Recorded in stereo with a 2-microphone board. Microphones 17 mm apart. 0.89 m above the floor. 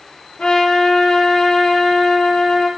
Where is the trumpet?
70° left (ahead or behind), 5 m.